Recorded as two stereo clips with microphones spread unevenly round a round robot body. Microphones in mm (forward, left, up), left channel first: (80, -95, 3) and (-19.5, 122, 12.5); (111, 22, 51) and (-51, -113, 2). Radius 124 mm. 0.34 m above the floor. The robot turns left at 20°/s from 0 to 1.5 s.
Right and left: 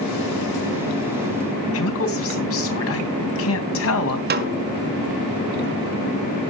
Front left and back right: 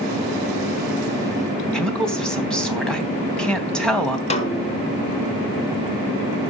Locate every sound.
1.7 s a woman speaking: 50° right, 3 m
4.3 s a snare drum: 105° left, 1.4 m